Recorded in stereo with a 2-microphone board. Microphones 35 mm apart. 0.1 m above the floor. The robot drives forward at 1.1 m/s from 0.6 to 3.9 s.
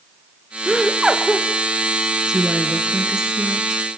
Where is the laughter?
15° right (ahead or behind), 1.1 m; by 1.5 s 10° right (ahead or behind), 1.5 m.